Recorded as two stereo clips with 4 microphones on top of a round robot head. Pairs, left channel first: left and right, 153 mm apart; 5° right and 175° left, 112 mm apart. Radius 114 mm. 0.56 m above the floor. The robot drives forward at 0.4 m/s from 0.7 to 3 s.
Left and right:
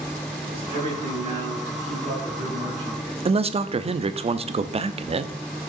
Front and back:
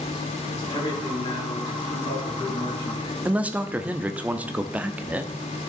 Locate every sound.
0.5 s a man speaking: 35° right, 5.5 m; by 3.1 s 40° right, 4.5 m
3.2 s a man speaking: 115° right, 0.7 m